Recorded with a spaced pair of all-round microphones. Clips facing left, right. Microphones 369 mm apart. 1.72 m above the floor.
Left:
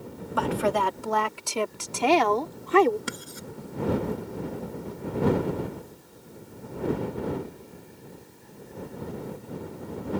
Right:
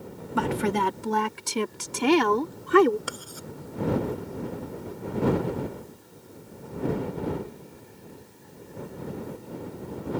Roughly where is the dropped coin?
No dropped coin in this recording.